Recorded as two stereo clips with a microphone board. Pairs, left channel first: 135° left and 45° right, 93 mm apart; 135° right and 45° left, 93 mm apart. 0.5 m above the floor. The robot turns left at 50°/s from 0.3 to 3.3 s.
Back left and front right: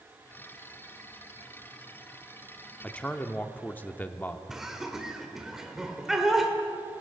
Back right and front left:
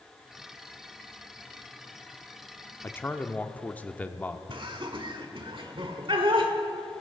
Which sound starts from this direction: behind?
A man speaking, at 2.8 s.